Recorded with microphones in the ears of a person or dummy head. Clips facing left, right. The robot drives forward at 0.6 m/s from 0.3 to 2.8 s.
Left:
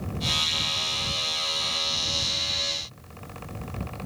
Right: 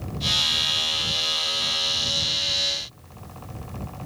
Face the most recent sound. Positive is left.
No sound to turn to.